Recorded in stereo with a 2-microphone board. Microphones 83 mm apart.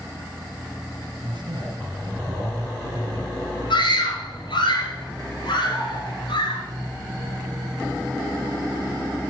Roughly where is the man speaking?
Right.